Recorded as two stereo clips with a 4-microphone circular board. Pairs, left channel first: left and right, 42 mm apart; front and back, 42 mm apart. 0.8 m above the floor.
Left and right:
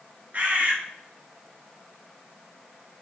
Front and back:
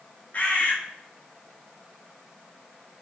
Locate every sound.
0.3 s a bird: 45° right, 0.5 m